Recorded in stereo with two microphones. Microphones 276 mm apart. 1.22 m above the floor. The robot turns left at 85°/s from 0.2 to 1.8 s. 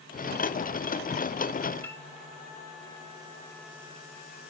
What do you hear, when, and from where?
1.8 s a piano: 5° left (ahead or behind), 2 m